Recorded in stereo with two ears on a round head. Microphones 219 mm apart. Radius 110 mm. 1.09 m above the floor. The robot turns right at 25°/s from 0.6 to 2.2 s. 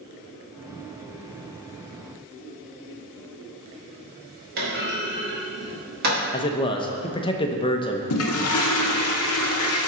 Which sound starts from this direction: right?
A clunk, at 4.6 s.